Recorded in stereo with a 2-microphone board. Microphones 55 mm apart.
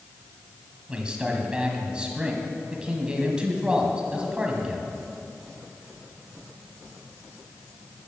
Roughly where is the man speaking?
Centre.